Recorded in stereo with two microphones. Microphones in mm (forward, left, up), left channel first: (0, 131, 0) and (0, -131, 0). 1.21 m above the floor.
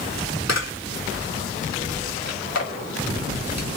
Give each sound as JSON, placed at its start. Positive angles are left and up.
{"t": 0.5, "sound": "a camera shutter", "side_deg": 80, "distance_m": 3.5}